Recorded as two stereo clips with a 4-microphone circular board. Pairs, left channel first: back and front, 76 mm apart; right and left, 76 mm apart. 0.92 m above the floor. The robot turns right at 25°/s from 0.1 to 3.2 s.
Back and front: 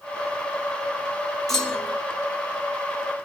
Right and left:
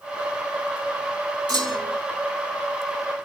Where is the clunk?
95° left, 3 m; by 2.0 s 105° left, 3 m.